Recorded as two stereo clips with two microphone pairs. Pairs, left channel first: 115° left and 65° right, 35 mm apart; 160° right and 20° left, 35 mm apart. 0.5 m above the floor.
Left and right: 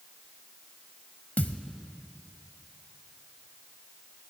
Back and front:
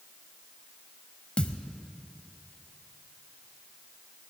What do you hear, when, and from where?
1.4 s a thud: 145° left, 0.7 m